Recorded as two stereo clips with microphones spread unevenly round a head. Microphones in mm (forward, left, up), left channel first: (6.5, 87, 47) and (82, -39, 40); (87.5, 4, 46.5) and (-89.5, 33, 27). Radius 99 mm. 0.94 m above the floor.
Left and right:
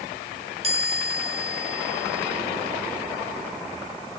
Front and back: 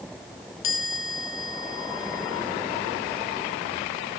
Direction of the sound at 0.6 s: 15° right.